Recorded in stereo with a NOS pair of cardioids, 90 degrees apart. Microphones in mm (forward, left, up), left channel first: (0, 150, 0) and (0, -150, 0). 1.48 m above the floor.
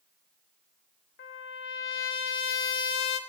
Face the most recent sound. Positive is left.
turn(degrees=40)